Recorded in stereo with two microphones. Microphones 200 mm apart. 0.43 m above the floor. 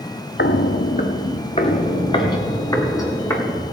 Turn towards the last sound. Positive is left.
turn(degrees=15)  # may be behind; listen again after turning